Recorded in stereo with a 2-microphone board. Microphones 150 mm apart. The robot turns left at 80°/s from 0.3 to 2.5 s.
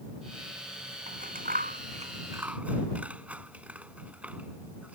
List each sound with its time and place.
1.1 s scissors: 50° right (ahead or behind); by 5.0 s 10° right (ahead or behind)